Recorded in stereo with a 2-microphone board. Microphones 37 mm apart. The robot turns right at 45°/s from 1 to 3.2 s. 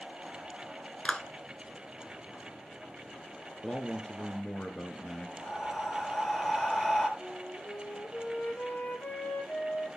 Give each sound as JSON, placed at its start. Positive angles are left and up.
{"t": 1.1, "sound": "a clap", "side_deg": 25, "distance_m": 0.9}
{"t": 3.6, "sound": "a man speaking", "side_deg": 20, "distance_m": 1.2}
{"t": 5.4, "sound": "breathing", "side_deg": 10, "distance_m": 2.5}
{"t": 7.2, "sound": "a flute", "side_deg": 60, "distance_m": 2.0}